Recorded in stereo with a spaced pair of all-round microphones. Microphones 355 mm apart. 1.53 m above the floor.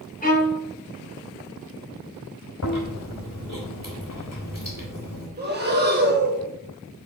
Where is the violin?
25° left (ahead or behind), 2.5 m.